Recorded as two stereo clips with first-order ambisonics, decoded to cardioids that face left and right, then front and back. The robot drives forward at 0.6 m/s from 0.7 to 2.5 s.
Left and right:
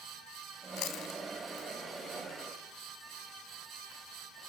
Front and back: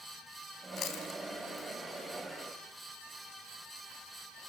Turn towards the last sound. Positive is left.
turn(degrees=70)